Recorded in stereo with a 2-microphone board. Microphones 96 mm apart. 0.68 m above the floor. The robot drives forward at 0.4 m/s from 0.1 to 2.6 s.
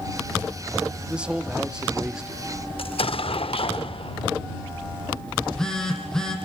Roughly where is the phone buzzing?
Centre.